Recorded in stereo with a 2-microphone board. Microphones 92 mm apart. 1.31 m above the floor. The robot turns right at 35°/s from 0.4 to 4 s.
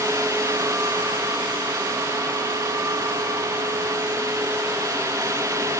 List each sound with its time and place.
Only background noise.